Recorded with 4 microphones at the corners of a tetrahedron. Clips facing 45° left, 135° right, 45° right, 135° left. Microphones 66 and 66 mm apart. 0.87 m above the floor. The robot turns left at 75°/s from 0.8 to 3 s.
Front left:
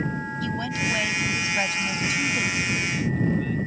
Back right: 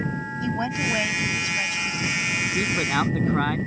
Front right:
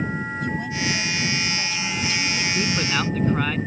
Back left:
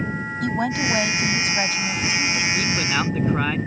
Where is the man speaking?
110° right; by 3.6 s 145° right.